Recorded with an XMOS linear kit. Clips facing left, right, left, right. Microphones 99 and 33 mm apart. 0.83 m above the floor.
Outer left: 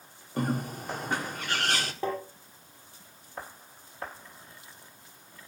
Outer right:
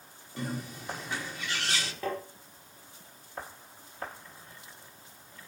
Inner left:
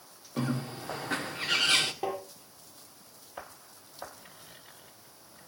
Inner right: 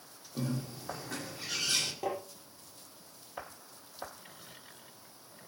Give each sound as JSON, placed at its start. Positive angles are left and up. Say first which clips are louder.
{"t": 0.4, "sound": "a bird", "louder": "outer left 6 dB, inner left 4 dB", "side_deg": 50, "distance_m": 1.6}
{"t": 2.0, "sound": "tapping", "louder": "outer left 2 dB, inner left 2 dB", "side_deg": 20, "distance_m": 5.0}